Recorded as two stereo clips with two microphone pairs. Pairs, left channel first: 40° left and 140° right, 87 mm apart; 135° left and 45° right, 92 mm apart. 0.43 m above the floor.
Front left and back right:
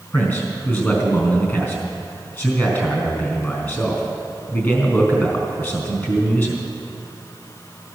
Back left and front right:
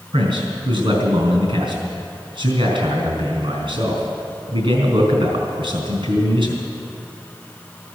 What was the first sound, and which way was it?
A man speaking, 25° right.